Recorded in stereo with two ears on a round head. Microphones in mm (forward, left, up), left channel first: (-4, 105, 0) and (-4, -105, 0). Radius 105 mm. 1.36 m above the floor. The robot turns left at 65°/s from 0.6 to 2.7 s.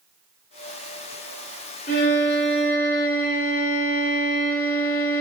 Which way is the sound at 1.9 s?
70° left.